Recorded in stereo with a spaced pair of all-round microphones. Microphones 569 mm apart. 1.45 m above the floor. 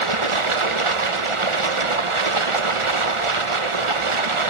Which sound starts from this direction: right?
Running water, at 0.0 s.